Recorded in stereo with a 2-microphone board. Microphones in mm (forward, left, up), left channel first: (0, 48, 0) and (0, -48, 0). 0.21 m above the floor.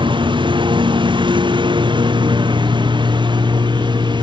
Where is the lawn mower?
55° right (ahead or behind); by 4.2 s 50° right (ahead or behind).